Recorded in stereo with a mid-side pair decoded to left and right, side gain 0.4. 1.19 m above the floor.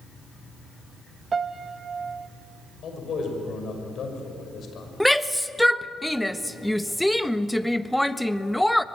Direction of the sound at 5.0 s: 5° left.